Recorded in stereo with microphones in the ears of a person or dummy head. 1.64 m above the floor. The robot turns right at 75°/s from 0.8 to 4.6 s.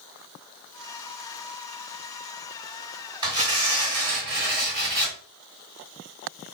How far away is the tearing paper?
About 1.9 m.